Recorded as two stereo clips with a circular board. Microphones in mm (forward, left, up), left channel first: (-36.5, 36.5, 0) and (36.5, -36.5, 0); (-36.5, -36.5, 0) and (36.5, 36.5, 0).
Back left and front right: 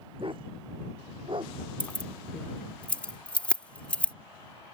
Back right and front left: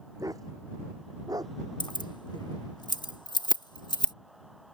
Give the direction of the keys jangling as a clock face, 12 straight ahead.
5 o'clock.